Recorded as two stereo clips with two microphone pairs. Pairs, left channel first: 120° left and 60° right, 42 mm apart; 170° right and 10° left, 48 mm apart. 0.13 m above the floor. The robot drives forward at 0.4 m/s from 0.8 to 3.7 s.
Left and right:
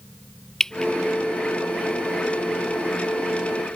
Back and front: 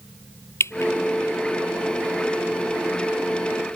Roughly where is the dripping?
Behind.